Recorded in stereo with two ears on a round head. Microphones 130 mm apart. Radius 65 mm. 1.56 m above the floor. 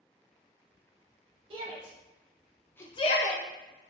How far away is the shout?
About 1.4 m.